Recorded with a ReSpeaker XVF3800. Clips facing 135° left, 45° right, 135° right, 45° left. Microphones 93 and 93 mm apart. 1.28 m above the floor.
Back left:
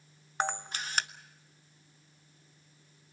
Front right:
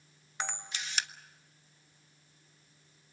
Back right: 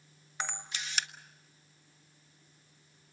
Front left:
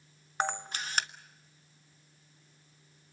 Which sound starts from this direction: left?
A camera shutter, at 0.4 s.